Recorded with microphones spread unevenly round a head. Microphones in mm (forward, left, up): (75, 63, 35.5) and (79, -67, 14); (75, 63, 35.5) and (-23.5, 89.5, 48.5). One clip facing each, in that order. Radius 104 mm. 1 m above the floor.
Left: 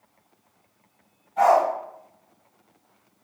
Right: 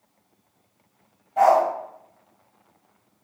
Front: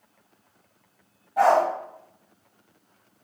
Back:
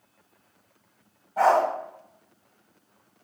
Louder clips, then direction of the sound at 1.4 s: Right 1 dB, front 1 dB; 110° right.